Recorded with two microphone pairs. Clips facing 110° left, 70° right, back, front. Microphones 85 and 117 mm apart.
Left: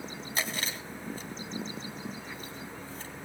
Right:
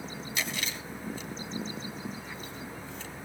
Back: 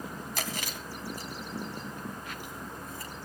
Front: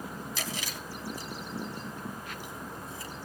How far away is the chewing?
About 2.5 m.